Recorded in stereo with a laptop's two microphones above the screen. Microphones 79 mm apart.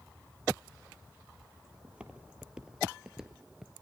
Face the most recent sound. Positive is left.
turn(degrees=-5)  # may be behind; listen again after turning